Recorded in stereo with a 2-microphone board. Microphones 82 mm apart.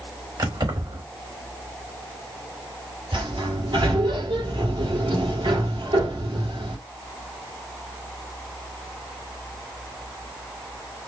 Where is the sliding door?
75° right (ahead or behind), 3.5 m.